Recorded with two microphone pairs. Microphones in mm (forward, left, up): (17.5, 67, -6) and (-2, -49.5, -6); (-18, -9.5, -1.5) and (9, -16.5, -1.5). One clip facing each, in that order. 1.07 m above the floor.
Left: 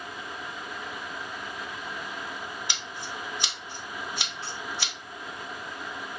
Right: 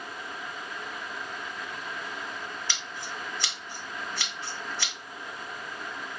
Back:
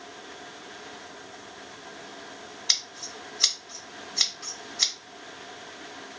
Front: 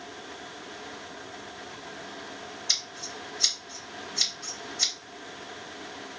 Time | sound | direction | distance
2.7 | scissors | 155° left | 2.5 m